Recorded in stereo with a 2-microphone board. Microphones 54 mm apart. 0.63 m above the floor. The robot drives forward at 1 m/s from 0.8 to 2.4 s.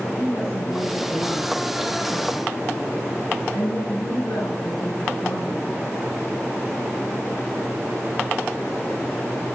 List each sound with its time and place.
0.2 s a woman speaking: 65° left (ahead or behind), 6 m; by 5.8 s 80° left, 5.5 m